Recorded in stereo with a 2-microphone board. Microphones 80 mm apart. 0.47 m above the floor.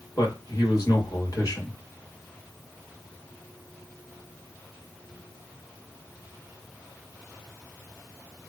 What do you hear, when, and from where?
0.2 s a man speaking: 50° left (ahead or behind), 1.8 m